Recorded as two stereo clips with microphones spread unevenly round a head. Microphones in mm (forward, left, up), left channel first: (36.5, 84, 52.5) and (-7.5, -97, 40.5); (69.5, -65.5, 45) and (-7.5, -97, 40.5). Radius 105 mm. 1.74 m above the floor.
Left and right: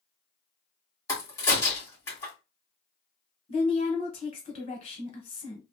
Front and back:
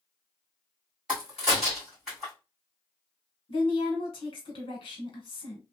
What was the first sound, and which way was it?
A crack, 125° left.